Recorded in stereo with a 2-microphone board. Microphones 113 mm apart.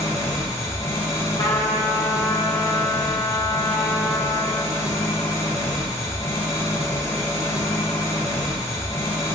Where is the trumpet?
35° left (ahead or behind), 0.9 m.